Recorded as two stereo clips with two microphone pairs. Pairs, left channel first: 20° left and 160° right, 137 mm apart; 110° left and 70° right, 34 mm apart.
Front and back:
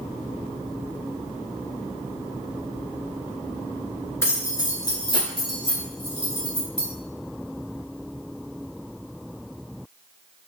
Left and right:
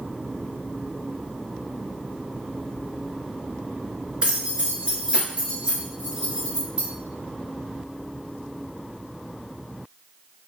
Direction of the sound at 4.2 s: 40° right.